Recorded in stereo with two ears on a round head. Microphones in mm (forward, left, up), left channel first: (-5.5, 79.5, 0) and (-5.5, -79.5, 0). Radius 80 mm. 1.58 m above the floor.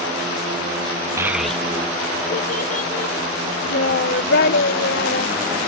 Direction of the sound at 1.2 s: 15° right (ahead or behind).